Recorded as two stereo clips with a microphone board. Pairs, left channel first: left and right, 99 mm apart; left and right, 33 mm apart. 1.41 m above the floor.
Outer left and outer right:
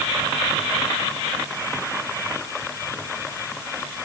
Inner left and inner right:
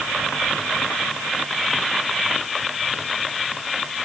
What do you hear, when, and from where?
Only background noise.